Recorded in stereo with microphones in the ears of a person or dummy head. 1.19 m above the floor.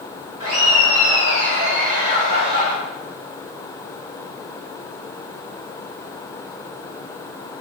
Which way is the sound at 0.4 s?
70° right (ahead or behind).